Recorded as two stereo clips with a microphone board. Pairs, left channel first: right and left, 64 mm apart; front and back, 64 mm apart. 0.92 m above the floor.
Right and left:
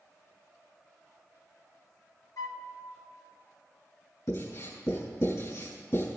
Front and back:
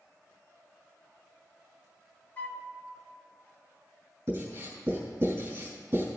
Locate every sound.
2.4 s a flute: 65° right, 1.0 m
4.3 s writing: 125° right, 5.5 m